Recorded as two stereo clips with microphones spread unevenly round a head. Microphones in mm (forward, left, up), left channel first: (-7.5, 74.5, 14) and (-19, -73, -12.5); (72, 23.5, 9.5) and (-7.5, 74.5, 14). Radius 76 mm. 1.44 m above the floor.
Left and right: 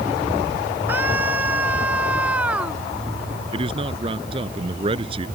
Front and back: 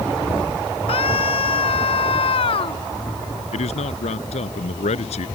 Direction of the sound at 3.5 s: 35° right.